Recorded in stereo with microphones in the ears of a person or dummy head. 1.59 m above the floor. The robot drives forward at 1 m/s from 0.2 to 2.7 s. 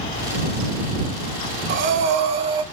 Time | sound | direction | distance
1.7 | breathing | 45° right (ahead or behind) | 0.9 m